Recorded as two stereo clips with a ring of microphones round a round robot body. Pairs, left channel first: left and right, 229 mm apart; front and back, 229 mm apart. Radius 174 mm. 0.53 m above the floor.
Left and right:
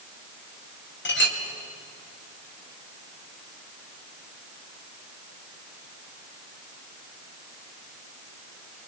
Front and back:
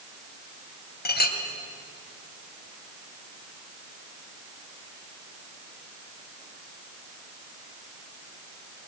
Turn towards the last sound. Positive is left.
turn(degrees=50)